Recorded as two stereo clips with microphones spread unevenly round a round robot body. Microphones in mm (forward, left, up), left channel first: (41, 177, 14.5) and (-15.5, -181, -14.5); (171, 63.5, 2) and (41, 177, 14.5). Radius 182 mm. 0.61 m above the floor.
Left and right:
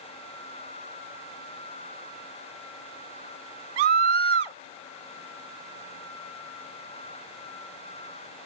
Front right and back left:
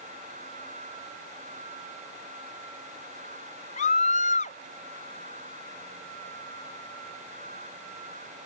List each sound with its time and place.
3.8 s a scream: 105° right